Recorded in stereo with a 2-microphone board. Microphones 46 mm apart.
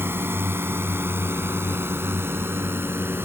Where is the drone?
65° right (ahead or behind); by 3.3 s 70° right (ahead or behind).